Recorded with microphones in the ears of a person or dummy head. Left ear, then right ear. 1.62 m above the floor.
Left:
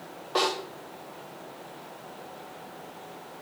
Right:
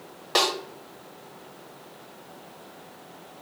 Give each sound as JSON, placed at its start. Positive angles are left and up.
{"t": 0.3, "sound": "a snare drum", "side_deg": -60, "distance_m": 2.5}